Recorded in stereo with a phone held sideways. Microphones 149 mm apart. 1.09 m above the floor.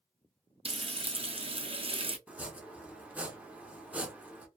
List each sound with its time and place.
0.7 s frying: 40° right (ahead or behind), 0.5 m
2.3 s chopping: 10° right (ahead or behind), 0.7 m